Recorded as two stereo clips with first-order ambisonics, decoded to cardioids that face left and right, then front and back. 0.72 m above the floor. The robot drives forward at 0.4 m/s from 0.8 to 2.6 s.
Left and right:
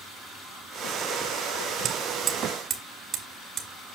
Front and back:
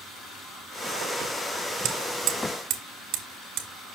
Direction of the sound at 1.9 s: 150° right.